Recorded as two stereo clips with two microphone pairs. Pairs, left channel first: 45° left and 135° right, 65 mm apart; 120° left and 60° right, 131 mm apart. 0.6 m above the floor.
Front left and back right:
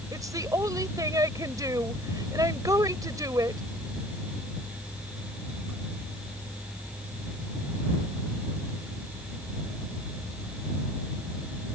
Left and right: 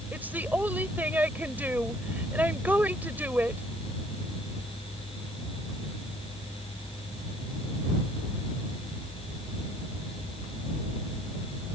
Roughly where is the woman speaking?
Behind right.